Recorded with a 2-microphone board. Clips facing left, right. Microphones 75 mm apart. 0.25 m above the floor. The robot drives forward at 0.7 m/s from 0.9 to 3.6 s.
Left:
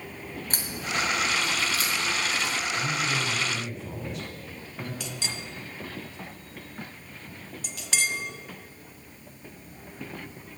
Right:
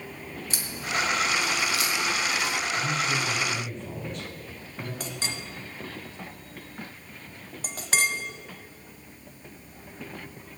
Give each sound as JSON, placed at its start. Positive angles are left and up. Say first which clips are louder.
{"t": 0.5, "sound": "a crack", "louder": "right 1 dB", "side_deg": 45, "distance_m": 2.0}
{"t": 2.7, "sound": "a man speaking", "louder": "right 1 dB", "side_deg": 5, "distance_m": 1.9}
{"t": 5.0, "sound": "a clink", "louder": "right 1 dB", "side_deg": -40, "distance_m": 1.0}